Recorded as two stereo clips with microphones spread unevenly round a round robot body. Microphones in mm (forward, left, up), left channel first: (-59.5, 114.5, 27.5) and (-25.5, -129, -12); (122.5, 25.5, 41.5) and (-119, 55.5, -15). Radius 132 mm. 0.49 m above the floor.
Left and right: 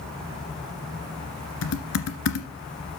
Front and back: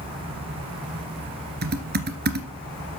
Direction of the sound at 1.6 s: 120° left.